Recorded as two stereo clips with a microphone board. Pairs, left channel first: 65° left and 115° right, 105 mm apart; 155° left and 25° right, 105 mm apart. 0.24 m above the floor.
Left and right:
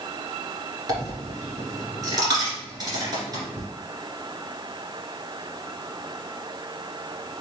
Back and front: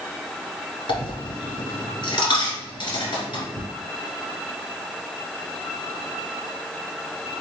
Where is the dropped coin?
165° right, 1.9 m.